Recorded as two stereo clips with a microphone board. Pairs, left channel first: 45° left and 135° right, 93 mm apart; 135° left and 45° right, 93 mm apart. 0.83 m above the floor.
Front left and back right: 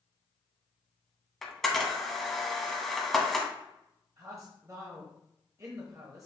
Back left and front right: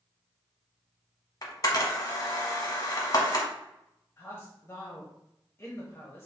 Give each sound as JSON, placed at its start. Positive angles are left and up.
{"t": 1.4, "sound": "a camera shutter", "azimuth_deg": 130, "distance_m": 1.0}
{"t": 4.2, "sound": "a man speaking", "azimuth_deg": -175, "distance_m": 0.9}